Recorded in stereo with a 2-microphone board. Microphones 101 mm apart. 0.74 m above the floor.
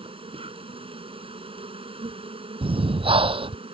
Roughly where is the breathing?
Right.